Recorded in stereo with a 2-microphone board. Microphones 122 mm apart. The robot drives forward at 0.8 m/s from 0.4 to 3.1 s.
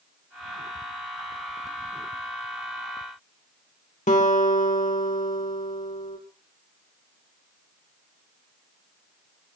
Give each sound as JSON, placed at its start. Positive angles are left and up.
{"t": 4.1, "sound": "a guitar", "side_deg": 85, "distance_m": 3.5}